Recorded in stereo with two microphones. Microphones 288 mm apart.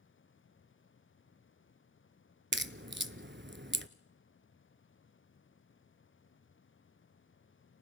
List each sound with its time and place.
2.5 s a crack: 40° right (ahead or behind), 0.6 m